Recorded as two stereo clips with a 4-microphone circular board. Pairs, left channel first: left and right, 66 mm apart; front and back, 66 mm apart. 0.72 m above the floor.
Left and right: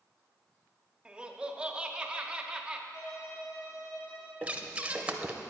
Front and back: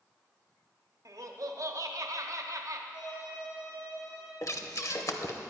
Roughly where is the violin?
Ahead left.